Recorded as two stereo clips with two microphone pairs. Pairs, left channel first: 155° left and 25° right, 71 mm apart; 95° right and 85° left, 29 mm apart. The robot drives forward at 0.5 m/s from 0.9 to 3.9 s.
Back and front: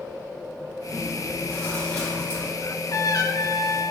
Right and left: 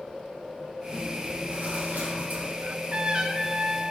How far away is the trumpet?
About 0.7 m.